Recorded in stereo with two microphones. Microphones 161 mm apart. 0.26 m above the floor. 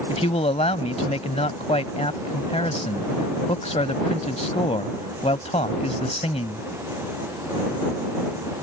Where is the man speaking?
40° left (ahead or behind).